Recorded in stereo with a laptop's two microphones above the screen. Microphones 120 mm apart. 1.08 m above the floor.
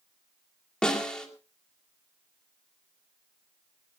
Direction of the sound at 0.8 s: 5° left (ahead or behind).